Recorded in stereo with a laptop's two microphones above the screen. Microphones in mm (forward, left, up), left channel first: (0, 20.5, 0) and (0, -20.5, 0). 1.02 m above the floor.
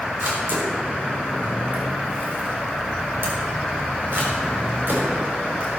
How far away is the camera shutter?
About 4 m.